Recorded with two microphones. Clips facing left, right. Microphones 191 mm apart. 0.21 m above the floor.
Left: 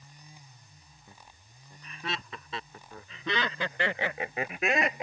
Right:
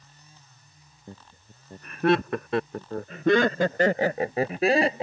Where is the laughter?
50° right (ahead or behind); by 5.0 s 30° right (ahead or behind).